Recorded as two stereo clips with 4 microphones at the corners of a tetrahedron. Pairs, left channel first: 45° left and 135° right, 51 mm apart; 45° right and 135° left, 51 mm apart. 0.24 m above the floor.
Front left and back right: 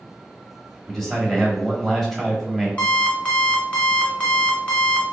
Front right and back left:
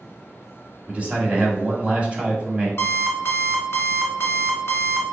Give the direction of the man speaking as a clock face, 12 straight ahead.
8 o'clock.